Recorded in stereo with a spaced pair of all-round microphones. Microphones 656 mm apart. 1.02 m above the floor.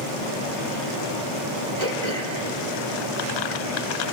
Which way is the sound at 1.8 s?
75° right (ahead or behind).